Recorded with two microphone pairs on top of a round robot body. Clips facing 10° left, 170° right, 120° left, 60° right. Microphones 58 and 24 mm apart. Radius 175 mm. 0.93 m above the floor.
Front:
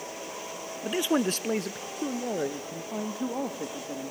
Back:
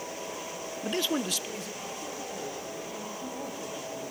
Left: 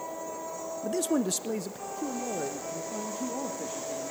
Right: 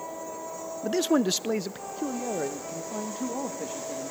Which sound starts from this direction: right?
A man speaking, at 0.8 s.